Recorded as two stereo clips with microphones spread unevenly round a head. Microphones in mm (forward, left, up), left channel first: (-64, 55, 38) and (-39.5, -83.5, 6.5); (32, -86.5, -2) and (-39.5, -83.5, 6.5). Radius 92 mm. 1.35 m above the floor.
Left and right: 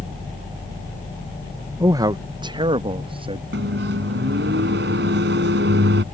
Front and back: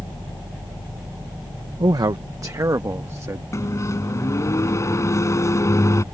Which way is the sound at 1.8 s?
150° right.